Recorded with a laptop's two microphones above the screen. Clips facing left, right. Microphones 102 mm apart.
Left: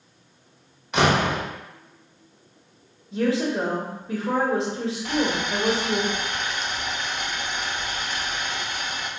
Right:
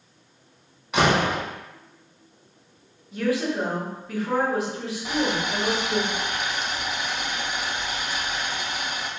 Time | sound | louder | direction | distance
0.9 | a door slam | even | centre (ahead or behind) | 1.0 m
3.1 | a woman speaking | left 2 dB | 25° left (ahead or behind) | 0.8 m
5.0 | boiling | even | 10° right (ahead or behind) | 0.6 m